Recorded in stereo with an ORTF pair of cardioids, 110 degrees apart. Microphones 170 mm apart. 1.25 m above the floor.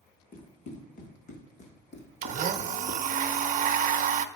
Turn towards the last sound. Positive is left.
turn(degrees=-50)